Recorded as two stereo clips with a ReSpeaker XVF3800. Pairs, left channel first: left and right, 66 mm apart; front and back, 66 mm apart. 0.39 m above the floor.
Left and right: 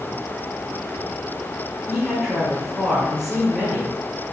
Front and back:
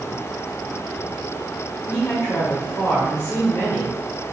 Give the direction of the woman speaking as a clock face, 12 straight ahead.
1 o'clock.